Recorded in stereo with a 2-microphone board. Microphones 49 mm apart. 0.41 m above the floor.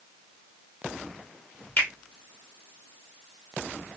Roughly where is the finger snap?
Left.